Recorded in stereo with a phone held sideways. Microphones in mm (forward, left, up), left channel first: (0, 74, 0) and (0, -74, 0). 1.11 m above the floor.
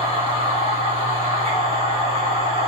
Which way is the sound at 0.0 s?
40° right (ahead or behind).